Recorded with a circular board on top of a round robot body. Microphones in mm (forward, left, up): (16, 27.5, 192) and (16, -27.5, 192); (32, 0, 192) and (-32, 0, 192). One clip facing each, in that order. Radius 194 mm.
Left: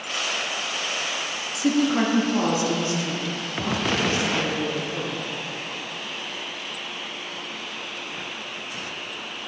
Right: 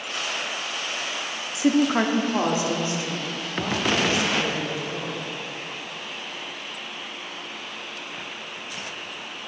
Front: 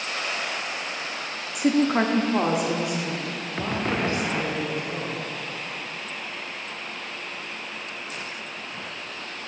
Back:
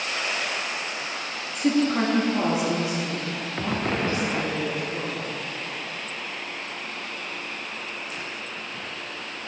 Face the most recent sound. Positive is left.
turn(degrees=-20)